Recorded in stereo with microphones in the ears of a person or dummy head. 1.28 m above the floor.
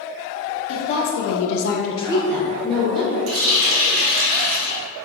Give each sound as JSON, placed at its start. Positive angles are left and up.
{"t": 0.7, "sound": "a woman speaking", "side_deg": 65, "distance_m": 1.1}
{"t": 3.3, "sound": "a running tap", "side_deg": -70, "distance_m": 1.1}